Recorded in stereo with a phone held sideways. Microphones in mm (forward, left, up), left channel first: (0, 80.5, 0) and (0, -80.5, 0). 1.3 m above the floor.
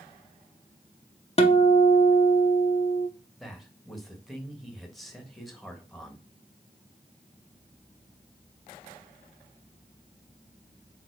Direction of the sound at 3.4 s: Centre (ahead or behind).